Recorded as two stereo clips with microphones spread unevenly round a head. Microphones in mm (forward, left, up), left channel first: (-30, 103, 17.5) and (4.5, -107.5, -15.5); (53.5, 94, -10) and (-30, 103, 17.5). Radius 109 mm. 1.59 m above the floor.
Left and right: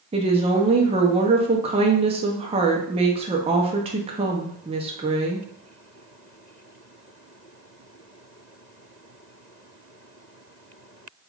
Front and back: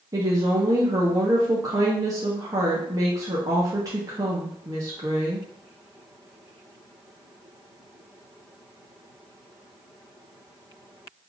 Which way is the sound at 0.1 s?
150° right.